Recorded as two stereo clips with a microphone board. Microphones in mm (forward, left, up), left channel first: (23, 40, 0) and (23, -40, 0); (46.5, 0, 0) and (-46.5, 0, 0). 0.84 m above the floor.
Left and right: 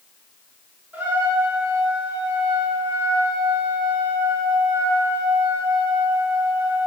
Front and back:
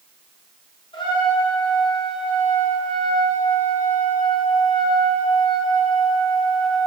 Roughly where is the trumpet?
Ahead.